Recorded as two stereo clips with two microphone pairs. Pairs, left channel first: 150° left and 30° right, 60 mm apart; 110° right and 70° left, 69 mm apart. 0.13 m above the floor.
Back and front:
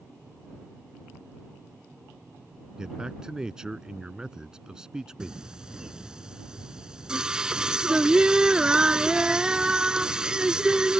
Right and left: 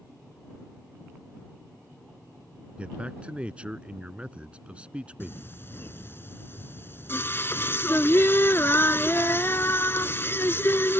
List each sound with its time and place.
2.8 s a man speaking: 25° left
5.2 s singing: 100° right